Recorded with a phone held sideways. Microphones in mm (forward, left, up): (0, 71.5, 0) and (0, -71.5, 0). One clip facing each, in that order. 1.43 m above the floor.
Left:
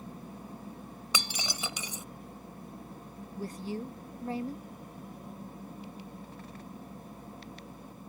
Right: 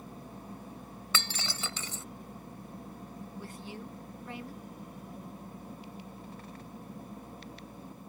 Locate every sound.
1.1 s breaking glass: 15° left (ahead or behind)
3.4 s a woman speaking: 40° left (ahead or behind)